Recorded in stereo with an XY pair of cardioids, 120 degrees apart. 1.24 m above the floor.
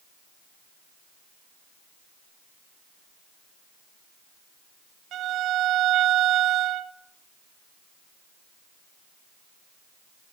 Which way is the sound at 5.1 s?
60° right.